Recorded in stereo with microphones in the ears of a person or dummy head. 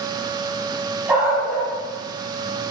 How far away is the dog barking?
About 4 m.